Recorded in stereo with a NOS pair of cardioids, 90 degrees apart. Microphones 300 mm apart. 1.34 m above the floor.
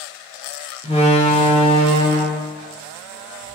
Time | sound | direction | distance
0.8 | a door slam | 20° left | 2.5 m